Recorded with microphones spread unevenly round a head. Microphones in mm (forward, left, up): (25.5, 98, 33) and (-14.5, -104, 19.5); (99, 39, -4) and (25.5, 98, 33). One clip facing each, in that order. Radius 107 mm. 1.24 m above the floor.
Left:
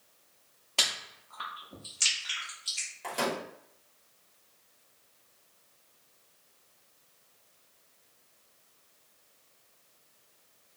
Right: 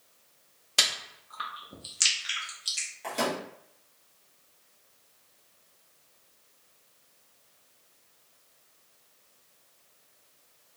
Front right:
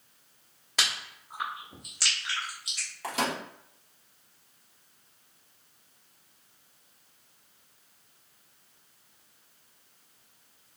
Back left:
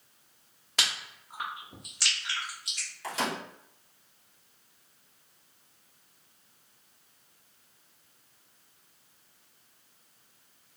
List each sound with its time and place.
0.8 s chewing: 165° right, 0.7 m
3.0 s a microwave: 10° right, 1.6 m